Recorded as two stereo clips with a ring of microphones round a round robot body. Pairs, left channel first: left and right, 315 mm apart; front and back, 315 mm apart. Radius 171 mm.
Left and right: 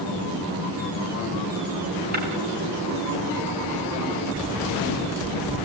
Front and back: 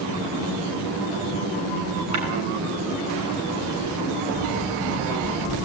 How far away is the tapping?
About 8.5 m.